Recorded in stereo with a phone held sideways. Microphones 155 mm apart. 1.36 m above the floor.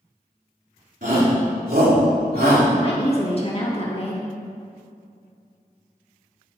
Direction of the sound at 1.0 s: 60° right (ahead or behind).